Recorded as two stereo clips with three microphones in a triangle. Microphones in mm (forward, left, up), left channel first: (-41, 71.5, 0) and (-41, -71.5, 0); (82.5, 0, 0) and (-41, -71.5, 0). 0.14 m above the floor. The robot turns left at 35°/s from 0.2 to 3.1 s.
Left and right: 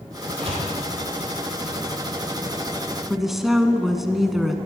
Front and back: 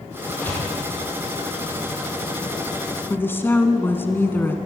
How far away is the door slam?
About 4.5 m.